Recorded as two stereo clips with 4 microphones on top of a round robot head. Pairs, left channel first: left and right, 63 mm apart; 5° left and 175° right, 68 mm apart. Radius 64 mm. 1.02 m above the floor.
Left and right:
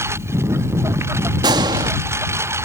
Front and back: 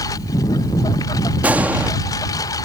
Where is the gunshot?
100° right.